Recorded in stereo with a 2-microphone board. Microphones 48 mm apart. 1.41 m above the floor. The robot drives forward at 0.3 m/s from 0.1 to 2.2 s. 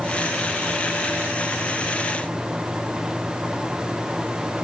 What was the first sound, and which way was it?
Only background noise.